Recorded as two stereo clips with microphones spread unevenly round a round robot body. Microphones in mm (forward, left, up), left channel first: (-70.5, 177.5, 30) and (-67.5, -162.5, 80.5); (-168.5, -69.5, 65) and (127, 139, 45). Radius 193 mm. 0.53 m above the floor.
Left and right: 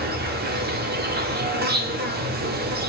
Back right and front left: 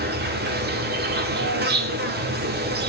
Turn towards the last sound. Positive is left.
turn(degrees=-25)